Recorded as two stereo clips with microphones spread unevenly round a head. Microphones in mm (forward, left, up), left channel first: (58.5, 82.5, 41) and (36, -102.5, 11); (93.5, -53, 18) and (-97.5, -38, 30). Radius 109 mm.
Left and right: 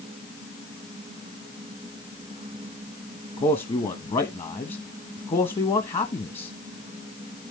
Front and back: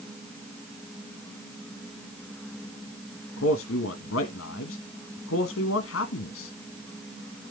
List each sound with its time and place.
3.4 s a man speaking: 25° left, 1.2 m